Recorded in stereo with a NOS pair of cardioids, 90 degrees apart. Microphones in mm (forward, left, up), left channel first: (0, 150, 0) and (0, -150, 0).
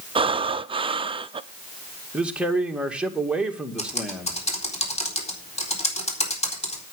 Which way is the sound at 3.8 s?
20° left.